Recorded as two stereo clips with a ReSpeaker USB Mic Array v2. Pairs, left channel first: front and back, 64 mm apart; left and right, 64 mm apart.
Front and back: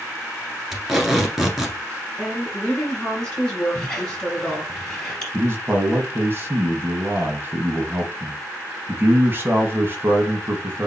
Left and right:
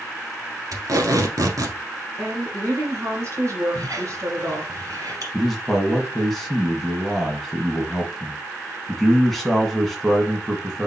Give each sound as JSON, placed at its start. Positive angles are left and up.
{"t": 0.7, "sound": "tape being pulled", "azimuth_deg": -90, "distance_m": 1.3}
{"t": 2.2, "sound": "a woman speaking", "azimuth_deg": -70, "distance_m": 2.5}
{"t": 3.8, "sound": "a squeak", "azimuth_deg": -75, "distance_m": 2.5}
{"t": 5.3, "sound": "a man speaking", "azimuth_deg": 175, "distance_m": 1.4}